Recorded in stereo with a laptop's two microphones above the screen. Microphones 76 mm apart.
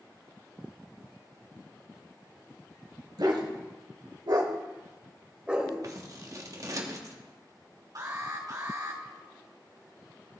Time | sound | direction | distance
3.2 | a dog barking | 65° right (ahead or behind) | 1.4 m
5.8 | scissors | 45° right (ahead or behind) | 0.9 m
8.0 | an alarm | 55° right (ahead or behind) | 3 m